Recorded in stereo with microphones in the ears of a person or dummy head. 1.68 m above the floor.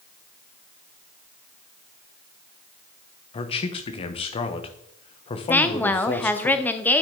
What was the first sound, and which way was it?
A man speaking, 30° left (ahead or behind).